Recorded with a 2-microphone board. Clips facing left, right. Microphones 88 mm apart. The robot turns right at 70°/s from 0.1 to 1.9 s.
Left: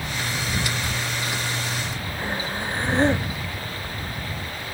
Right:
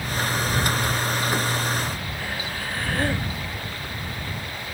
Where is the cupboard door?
I don't hear a cupboard door.